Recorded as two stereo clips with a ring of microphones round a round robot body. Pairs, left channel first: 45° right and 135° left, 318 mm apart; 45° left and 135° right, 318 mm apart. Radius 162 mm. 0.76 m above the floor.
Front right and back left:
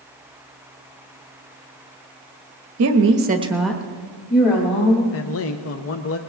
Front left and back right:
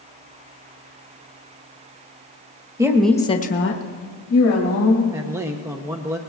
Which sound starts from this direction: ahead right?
A man speaking, at 5.1 s.